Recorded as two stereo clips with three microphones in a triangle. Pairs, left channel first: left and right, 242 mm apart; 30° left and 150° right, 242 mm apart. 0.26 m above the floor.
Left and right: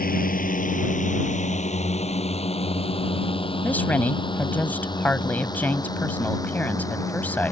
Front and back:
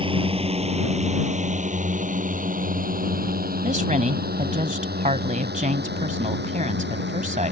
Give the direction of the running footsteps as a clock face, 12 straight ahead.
No running footsteps in this recording.